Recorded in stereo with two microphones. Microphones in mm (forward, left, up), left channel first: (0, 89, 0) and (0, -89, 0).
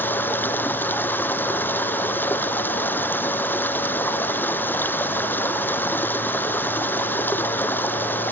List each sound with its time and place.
0.0 s running water: 10° left (ahead or behind)